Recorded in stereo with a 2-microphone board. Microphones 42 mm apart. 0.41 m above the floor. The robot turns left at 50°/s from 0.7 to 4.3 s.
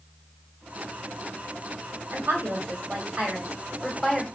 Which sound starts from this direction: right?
A woman speaking, at 2.1 s.